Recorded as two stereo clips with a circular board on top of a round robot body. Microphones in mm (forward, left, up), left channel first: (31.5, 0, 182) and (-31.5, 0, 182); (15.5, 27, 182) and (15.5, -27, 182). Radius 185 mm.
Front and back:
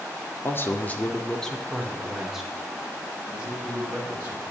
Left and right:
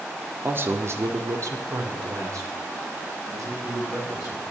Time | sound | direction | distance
0.4 | a man speaking | 45° right | 2 m